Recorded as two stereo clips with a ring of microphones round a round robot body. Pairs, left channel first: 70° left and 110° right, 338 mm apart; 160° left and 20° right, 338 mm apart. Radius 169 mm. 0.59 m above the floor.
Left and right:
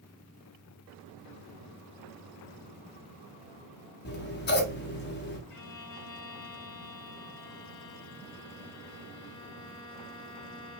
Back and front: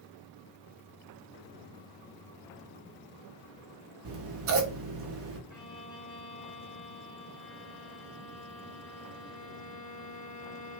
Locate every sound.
4.0 s scissors: 15° left, 0.7 m
5.5 s a violin: 70° left, 1.0 m